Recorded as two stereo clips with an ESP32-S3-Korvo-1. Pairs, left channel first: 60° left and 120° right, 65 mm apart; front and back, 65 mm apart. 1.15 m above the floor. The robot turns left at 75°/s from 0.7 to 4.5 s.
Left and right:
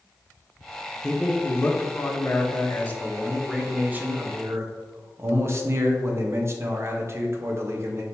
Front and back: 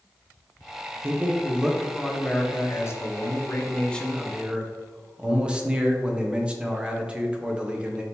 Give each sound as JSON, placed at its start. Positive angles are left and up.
{"t": 1.0, "sound": "a man speaking", "azimuth_deg": 145, "distance_m": 0.6}